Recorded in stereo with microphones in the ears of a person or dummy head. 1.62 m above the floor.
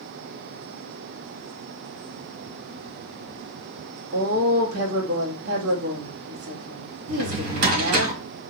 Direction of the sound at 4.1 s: 70° right (ahead or behind).